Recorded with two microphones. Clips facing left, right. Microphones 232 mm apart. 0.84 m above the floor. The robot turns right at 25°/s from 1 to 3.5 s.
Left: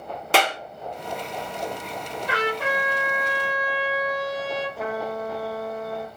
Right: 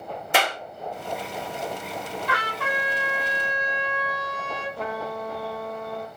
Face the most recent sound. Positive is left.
turn(degrees=5)  # may be behind; listen again after turning